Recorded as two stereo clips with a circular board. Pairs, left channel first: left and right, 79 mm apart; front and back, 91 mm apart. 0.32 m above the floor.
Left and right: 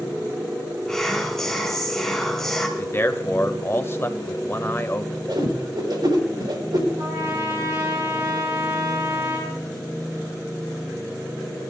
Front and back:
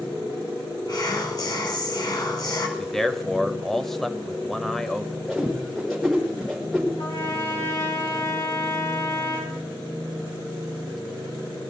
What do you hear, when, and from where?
0.9 s whispering: 10° left, 1.2 m
2.8 s a man speaking: 85° left, 0.9 m
5.3 s a whoosh: 85° right, 4.5 m
7.0 s a trumpet: 40° right, 5.5 m